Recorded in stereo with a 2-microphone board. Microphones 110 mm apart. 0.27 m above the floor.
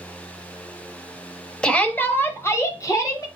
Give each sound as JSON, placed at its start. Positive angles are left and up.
{"t": 1.6, "sound": "a shout", "side_deg": 5, "distance_m": 1.0}